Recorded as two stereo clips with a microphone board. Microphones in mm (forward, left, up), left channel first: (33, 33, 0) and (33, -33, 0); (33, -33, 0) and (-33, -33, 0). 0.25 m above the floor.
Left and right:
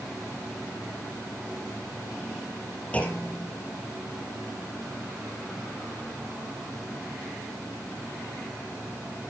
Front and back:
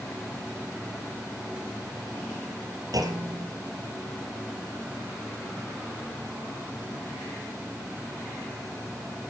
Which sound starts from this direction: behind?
A clunk, at 2.9 s.